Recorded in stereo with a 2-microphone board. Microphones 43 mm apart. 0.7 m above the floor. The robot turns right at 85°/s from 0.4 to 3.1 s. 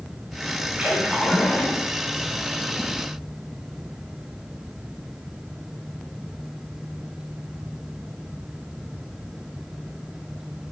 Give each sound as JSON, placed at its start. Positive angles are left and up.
{"t": 0.8, "sound": "a splash", "azimuth_deg": -30, "distance_m": 5.5}